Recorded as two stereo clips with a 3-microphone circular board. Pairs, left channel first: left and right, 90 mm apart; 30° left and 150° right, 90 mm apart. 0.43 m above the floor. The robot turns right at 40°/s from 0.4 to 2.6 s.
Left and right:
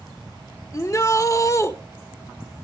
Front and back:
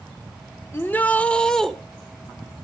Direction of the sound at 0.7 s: 75° left.